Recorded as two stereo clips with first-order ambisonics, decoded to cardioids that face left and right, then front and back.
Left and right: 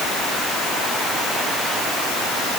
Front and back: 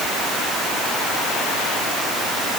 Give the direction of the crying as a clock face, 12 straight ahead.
No crying in this recording.